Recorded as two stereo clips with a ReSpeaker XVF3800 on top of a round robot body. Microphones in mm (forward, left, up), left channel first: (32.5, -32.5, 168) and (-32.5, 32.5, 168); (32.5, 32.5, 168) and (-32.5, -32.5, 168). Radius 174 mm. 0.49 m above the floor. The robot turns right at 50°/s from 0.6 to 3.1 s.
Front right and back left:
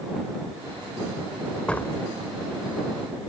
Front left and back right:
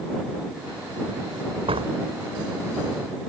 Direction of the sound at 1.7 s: 125° right.